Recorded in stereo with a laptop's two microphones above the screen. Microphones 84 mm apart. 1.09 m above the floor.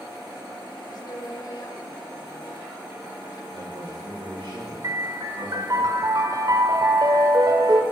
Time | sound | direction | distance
0.9 | a woman speaking | 55° left (ahead or behind) | 2.5 m
3.5 | a man speaking | 85° right | 4.5 m
4.8 | a piano | 50° right (ahead or behind) | 1.4 m